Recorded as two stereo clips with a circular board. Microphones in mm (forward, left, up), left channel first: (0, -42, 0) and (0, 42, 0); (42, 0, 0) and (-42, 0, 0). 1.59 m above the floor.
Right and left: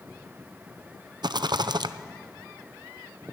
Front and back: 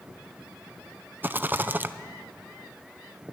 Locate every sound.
1.2 s a rattle: 115° left, 0.6 m